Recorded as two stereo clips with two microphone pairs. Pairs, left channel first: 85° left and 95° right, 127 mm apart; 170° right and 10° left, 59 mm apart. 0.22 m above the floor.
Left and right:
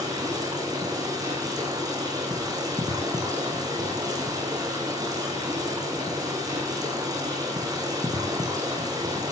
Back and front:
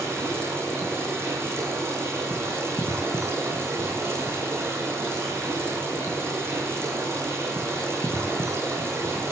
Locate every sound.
0.0 s running water: 35° right, 10 m